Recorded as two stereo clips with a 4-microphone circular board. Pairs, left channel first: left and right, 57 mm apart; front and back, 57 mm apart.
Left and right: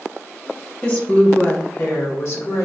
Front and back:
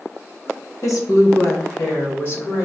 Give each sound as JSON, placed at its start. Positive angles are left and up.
{"t": 0.8, "sound": "a woman speaking", "azimuth_deg": 25, "distance_m": 1.1}